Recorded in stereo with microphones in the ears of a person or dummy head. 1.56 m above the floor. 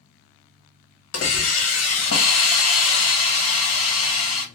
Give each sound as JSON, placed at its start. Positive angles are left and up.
{"t": 1.1, "sound": "a hiss", "side_deg": 75, "distance_m": 0.9}